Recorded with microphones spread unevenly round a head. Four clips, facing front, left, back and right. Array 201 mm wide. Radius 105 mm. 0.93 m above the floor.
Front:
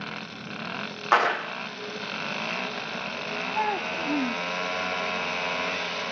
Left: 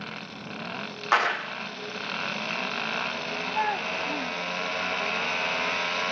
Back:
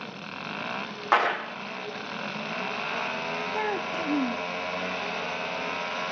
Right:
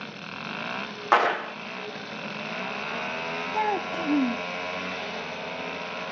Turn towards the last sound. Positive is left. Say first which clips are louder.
# right 2 dB, front 3 dB
turn(degrees=-85)